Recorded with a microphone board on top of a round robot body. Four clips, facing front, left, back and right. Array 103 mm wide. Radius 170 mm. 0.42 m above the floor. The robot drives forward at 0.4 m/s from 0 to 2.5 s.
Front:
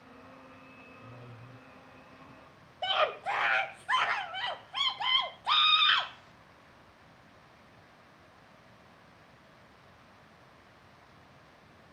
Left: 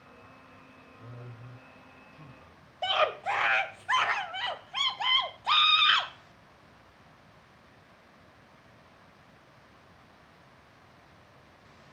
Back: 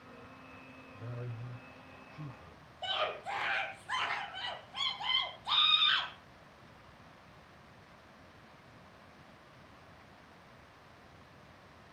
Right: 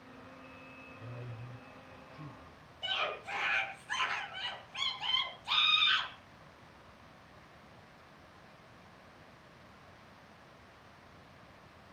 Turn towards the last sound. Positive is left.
turn(degrees=60)